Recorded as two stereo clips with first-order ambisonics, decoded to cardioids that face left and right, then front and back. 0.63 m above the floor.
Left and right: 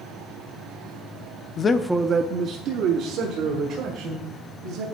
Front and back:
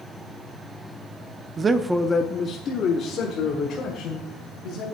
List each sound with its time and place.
1.6 s a man speaking: 130° left, 0.6 m; by 4.9 s 55° right, 3 m